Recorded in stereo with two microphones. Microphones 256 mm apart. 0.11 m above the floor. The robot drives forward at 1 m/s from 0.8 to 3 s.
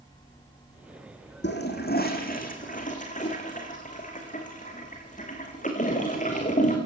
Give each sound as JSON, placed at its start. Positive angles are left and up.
{"t": 1.4, "sound": "a toilet flushing", "side_deg": 45, "distance_m": 3.5}